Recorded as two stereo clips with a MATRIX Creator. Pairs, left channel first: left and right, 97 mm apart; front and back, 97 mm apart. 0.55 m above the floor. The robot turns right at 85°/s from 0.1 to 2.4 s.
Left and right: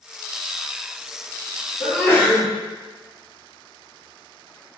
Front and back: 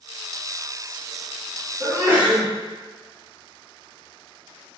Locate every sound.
1.8 s a sneeze: 100° left, 1.4 m; by 2.5 s 150° left, 1.4 m